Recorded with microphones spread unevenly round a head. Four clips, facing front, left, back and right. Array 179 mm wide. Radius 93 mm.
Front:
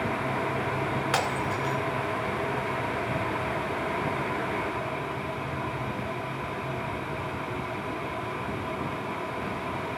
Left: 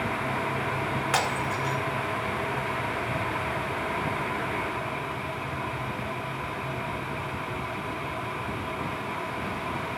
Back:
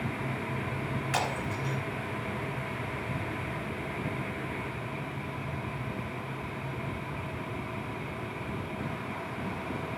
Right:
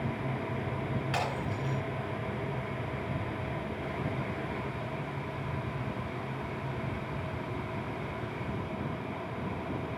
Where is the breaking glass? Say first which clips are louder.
Left 6 dB, front 4 dB; 45° left, 2.5 m.